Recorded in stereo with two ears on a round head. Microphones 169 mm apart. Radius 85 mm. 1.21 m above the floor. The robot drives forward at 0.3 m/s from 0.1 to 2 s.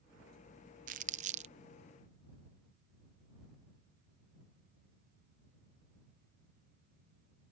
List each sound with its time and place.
0.9 s crumpling: 45° right (ahead or behind); by 1.5 s 40° right (ahead or behind)